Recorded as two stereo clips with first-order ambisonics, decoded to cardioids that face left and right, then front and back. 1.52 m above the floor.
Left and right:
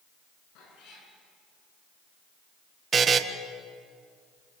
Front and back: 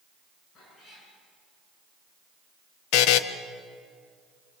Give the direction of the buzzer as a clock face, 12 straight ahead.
1 o'clock.